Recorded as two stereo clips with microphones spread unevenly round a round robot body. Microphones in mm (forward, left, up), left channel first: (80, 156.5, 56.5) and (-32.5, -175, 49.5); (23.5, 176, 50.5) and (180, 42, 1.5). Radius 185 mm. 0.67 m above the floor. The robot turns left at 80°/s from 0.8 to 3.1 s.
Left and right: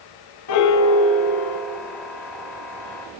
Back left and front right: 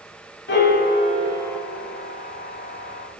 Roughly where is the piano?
Behind left.